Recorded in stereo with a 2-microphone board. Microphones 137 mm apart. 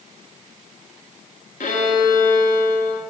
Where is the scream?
I don't hear a scream.